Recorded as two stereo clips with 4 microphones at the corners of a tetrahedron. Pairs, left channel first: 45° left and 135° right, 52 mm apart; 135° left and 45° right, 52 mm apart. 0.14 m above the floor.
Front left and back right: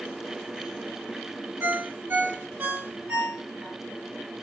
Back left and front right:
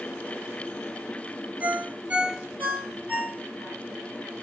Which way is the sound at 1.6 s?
95° right.